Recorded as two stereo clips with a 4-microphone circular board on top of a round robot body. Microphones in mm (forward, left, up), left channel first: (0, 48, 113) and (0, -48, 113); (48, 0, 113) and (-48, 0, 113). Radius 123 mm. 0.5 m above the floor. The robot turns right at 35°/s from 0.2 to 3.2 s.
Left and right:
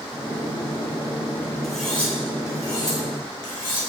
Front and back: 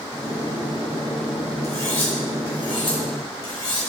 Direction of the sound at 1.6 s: Straight ahead.